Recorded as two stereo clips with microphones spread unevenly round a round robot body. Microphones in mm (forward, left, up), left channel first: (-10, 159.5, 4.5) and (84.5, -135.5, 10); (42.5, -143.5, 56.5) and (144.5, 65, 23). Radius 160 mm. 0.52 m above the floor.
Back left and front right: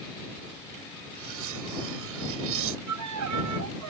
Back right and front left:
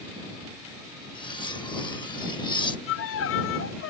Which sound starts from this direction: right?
A violin, at 2.9 s.